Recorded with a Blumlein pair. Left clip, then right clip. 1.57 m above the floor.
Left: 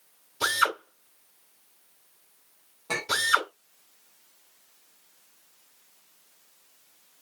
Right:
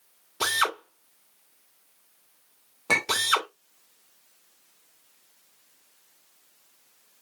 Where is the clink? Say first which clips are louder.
Right 3 dB; 60° right, 2.5 m.